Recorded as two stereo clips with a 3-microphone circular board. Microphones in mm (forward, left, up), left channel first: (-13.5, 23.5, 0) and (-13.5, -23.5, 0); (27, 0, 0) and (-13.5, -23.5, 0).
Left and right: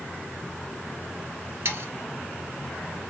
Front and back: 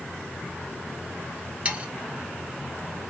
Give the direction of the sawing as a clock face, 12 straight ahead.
3 o'clock.